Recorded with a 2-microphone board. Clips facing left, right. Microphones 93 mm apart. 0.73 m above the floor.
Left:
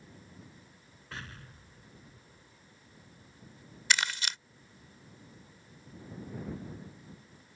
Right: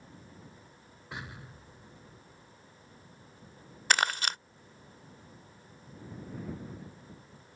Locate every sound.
1.1 s an explosion: 15° right (ahead or behind)
3.9 s crumpling: 50° right (ahead or behind)